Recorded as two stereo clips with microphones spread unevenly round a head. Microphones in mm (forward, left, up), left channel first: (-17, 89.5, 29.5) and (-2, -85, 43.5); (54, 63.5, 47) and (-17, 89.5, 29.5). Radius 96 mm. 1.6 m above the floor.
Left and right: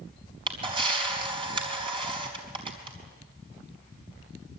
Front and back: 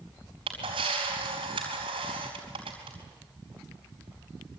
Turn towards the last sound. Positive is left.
turn(degrees=-145)